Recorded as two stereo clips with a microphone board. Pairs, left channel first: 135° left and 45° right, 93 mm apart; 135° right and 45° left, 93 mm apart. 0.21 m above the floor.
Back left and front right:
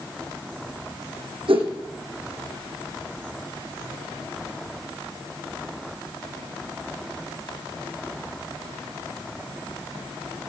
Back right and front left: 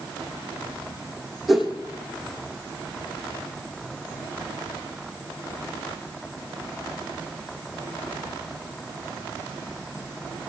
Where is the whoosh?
40° right, 3.5 m.